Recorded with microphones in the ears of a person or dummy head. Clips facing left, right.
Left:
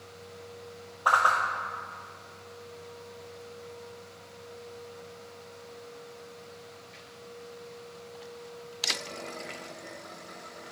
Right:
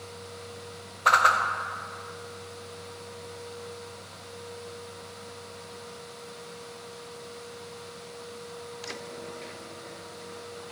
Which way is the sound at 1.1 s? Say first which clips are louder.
Right 2 dB; 25° right (ahead or behind).